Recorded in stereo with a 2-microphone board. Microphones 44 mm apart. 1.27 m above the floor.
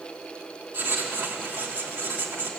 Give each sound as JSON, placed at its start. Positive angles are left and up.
{"t": 0.7, "sound": "writing", "side_deg": -50, "distance_m": 3.0}